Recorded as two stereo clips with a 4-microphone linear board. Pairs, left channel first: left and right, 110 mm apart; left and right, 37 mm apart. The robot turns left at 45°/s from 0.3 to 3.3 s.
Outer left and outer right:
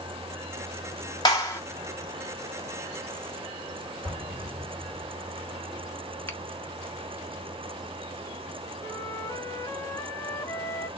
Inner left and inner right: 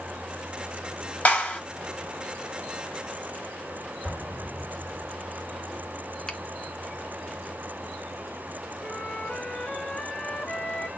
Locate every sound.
1.2 s a clap: 35° left (ahead or behind), 3.5 m; by 1.6 s 20° left (ahead or behind), 3.5 m
4.0 s an explosion: 55° right (ahead or behind), 4 m
6.3 s a finger snap: 20° left (ahead or behind), 1.0 m
8.8 s a flute: 25° left (ahead or behind), 0.9 m